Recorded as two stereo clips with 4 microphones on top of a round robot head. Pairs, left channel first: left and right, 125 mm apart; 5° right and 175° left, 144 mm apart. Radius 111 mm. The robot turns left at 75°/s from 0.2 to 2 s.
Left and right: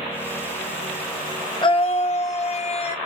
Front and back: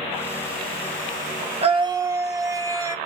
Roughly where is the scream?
Behind left.